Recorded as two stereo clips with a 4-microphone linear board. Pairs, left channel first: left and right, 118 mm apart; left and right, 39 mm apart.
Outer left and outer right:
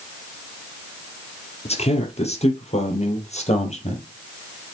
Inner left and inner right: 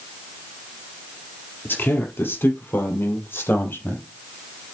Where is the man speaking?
60° left (ahead or behind), 3.5 m; by 4.0 s 65° left (ahead or behind), 4.5 m.